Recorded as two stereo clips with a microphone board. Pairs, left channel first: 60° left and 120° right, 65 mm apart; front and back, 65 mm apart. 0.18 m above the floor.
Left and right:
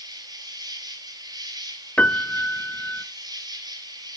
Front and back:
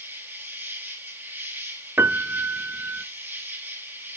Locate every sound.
0.0 s an insect: 115° right, 3 m
2.0 s a piano: 125° left, 0.5 m